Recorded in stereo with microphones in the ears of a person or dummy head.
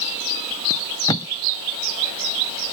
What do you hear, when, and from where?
0.7 s tape being pulled: 20° left (ahead or behind)